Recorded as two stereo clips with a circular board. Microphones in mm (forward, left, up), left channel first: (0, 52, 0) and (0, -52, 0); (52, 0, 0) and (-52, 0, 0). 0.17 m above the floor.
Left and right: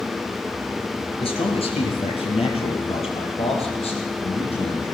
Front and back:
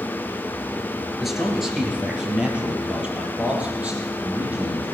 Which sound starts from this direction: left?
A man speaking, at 1.2 s.